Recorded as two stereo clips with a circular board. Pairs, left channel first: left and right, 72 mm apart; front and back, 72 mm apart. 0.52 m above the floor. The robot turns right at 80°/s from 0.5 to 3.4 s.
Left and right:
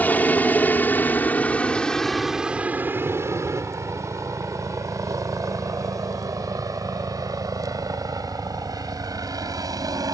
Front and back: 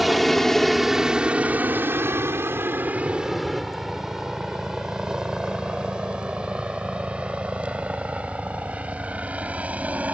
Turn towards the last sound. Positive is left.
turn(degrees=-110)